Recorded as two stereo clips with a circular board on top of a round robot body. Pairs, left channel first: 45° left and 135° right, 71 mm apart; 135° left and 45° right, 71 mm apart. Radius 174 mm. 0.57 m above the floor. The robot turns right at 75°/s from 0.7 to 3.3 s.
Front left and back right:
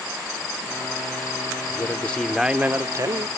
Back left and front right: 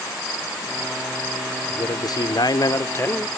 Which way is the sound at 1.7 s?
90° left.